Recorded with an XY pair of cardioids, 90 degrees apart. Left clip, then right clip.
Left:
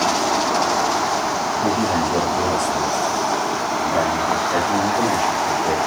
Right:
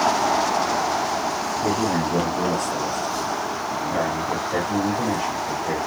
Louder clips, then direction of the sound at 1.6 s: Left 2 dB; 25° left.